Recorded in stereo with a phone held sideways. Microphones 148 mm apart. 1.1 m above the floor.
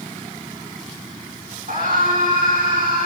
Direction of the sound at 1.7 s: 70° right (ahead or behind).